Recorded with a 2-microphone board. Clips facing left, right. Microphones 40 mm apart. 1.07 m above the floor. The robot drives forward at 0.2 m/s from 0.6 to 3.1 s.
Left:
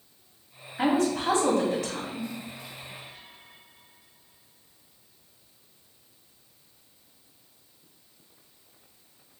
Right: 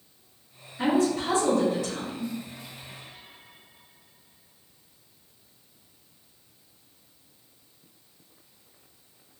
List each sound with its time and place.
0.8 s a woman speaking: 75° left (ahead or behind), 1.9 m; by 2.3 s 85° left, 1.8 m